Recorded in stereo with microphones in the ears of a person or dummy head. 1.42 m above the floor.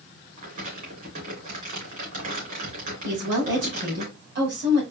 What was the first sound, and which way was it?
Crumpling, 45° right (ahead or behind).